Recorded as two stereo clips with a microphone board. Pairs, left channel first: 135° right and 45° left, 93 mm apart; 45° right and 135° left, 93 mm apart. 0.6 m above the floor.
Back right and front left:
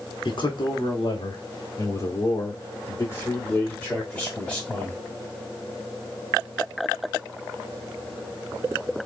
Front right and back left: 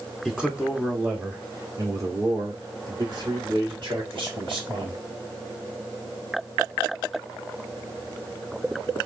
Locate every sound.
0.2 s a man speaking: 140° right, 1.8 m; by 5.0 s 145° left, 3 m